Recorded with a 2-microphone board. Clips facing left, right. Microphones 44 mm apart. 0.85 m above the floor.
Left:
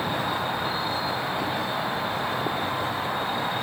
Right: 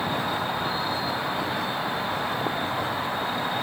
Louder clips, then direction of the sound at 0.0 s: Even; centre (ahead or behind).